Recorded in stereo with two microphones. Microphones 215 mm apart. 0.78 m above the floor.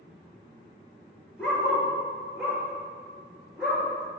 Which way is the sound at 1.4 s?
5° left (ahead or behind).